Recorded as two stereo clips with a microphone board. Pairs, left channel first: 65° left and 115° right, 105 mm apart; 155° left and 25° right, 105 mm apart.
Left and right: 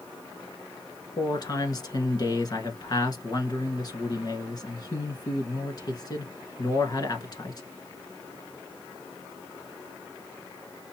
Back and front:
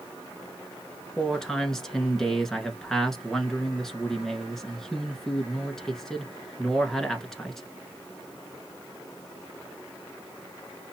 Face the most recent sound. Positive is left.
turn(degrees=75)